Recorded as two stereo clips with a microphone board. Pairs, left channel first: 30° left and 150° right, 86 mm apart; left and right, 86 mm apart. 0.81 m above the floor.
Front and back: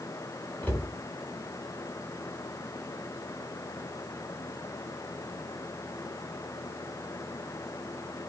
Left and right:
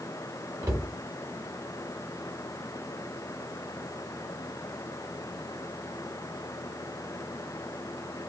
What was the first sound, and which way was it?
A cupboard door, 35° right.